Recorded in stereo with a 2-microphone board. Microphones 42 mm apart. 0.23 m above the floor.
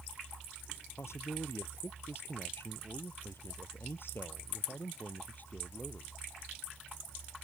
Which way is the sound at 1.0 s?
75° left (ahead or behind).